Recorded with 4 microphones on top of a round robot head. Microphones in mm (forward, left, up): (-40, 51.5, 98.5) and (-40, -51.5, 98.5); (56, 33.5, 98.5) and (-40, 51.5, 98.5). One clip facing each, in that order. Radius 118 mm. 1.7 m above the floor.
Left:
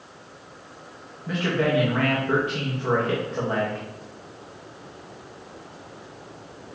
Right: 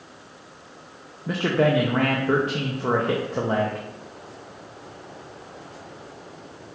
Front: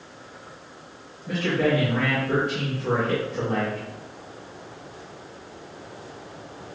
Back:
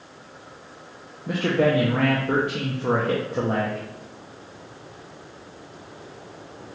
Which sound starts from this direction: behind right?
A man speaking, at 1.3 s.